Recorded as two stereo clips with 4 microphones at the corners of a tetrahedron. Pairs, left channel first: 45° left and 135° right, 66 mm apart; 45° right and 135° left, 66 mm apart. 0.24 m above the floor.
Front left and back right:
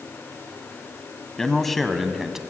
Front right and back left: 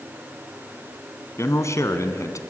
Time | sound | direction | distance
1.4 | a man speaking | 35° right | 2 m